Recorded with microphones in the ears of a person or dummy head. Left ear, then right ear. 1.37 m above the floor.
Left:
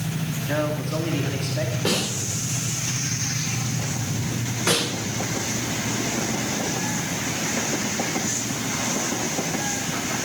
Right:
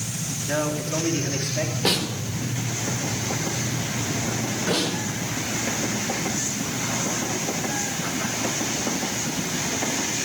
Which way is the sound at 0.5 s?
5° right (ahead or behind).